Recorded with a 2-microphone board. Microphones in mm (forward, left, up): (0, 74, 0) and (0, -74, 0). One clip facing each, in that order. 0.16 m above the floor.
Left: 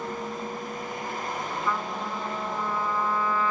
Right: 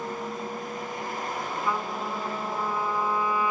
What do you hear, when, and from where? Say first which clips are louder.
1.6 s a trumpet: right 1 dB; 15° right (ahead or behind), 1.6 m